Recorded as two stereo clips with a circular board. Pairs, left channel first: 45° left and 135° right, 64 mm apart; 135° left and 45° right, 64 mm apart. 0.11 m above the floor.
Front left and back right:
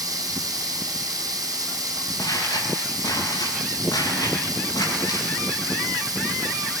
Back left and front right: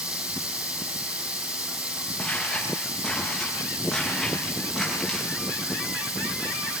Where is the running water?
115° right, 2.5 m.